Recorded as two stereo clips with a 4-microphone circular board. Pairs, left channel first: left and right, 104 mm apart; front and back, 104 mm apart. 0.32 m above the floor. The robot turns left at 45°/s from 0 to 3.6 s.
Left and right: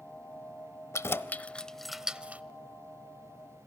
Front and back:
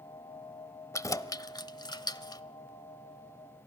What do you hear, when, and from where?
0.9 s keys jangling: 45° left, 1.0 m; by 2.4 s 25° right, 1.0 m